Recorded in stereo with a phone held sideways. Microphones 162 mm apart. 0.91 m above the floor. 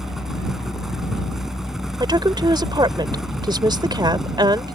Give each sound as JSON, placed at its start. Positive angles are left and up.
{"t": 0.0, "sound": "a fan", "side_deg": 0}
{"t": 2.0, "sound": "a woman speaking", "side_deg": -25}